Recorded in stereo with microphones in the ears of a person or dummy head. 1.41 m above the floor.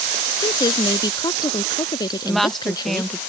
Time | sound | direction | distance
0.4 | a woman speaking | 20° left (ahead or behind) | ?
2.2 | a woman speaking | centre (ahead or behind) | ?